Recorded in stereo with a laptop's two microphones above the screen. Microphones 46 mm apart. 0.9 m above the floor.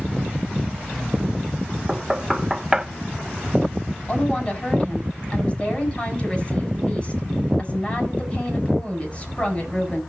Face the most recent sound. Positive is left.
turn(degrees=25)  # may be behind; listen again after turning